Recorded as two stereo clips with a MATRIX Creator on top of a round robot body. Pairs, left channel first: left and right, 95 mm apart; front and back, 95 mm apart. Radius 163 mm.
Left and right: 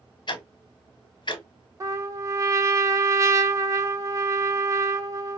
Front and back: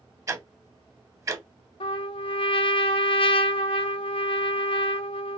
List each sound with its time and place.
0.3 s ticking: 125° left, 1.1 m
1.8 s a trumpet: 30° right, 0.7 m